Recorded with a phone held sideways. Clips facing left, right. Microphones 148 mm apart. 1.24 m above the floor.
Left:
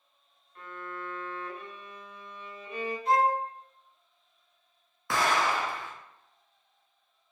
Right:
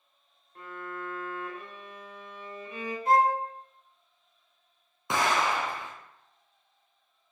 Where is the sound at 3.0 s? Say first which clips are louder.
Right 2 dB; 50° right (ahead or behind), 0.8 m.